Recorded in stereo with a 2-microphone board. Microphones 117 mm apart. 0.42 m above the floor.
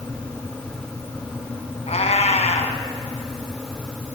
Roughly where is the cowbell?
No cowbell in this recording.